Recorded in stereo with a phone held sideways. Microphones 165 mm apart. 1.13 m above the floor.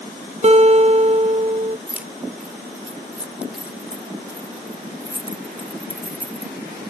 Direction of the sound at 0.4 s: 40° right (ahead or behind).